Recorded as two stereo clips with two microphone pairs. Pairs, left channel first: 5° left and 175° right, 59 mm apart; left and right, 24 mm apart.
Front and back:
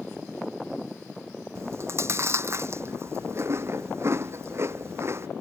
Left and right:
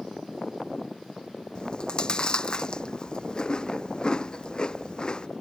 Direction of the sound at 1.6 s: 145° left.